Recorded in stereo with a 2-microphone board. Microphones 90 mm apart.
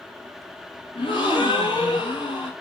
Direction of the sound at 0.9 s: 85° left.